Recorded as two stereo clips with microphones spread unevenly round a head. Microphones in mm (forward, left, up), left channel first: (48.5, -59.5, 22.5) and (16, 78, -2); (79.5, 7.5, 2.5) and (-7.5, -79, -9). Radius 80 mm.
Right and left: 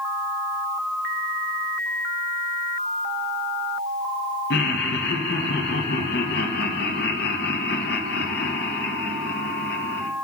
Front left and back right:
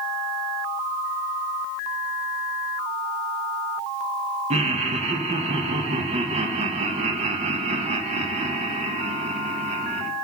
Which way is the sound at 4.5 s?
105° right.